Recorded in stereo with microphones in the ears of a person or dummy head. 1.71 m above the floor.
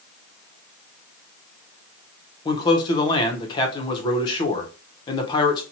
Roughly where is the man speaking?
Left.